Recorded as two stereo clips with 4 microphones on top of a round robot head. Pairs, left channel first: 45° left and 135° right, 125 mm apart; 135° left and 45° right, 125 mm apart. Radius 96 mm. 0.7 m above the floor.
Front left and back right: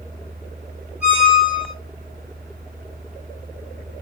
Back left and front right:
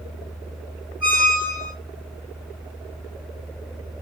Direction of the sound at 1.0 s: 145° left.